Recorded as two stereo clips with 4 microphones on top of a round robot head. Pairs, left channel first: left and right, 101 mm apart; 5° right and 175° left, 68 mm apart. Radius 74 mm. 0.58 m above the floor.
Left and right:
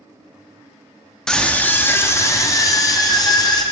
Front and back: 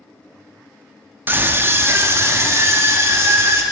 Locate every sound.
1.3 s a scream: 165° left, 0.9 m; by 3.6 s 130° left, 1.8 m